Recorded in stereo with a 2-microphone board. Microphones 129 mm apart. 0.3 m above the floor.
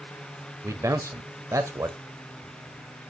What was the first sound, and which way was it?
A man speaking, 25° right (ahead or behind).